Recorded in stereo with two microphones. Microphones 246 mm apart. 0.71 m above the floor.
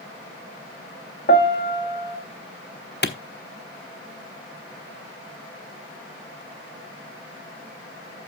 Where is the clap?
45° left (ahead or behind), 1.1 m.